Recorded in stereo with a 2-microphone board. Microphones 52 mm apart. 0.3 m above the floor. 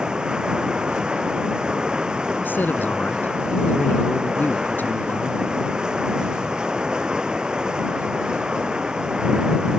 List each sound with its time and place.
0.0 s running water: 15° right (ahead or behind)
2.4 s a man speaking: 40° left (ahead or behind)